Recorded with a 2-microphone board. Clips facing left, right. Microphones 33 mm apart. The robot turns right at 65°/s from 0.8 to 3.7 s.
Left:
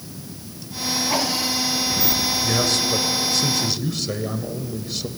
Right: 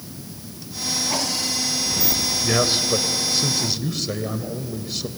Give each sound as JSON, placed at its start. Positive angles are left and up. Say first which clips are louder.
{"t": 2.4, "sound": "a man speaking", "louder": "right 3 dB", "side_deg": -20, "distance_m": 1.2}